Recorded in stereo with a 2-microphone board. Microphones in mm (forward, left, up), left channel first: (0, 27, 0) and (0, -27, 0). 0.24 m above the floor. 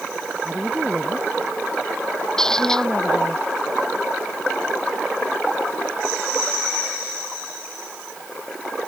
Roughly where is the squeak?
Centre.